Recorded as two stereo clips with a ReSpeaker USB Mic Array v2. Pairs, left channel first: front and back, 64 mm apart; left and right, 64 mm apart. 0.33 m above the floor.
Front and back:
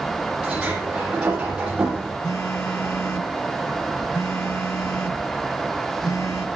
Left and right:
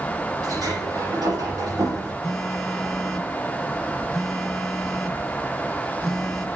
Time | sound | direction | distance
0.4 | a sliding door | 105° right | 9.5 m
2.2 | a phone buzzing | 5° left | 2 m